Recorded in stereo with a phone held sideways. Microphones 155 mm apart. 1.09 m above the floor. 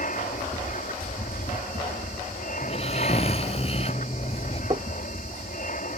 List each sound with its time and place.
0.0 s an aircraft: 60° left (ahead or behind)
2.6 s snoring: 40° left (ahead or behind)
4.7 s knocking: 35° right (ahead or behind)